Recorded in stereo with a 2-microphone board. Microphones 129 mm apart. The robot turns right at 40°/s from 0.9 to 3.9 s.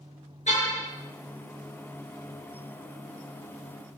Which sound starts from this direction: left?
A car horn, at 0.5 s.